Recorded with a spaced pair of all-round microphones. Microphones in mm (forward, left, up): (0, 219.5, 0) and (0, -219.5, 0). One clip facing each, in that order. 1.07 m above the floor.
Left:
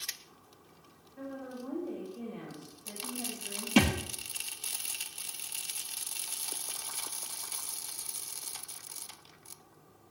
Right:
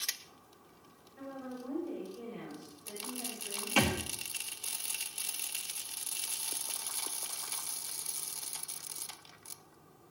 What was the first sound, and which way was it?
A woman speaking, 55° left (ahead or behind).